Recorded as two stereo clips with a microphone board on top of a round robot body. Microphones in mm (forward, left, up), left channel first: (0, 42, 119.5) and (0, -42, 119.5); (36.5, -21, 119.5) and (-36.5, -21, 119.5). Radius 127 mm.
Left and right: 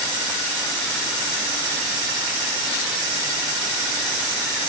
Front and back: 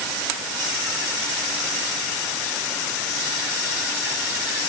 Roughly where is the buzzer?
No buzzer in this recording.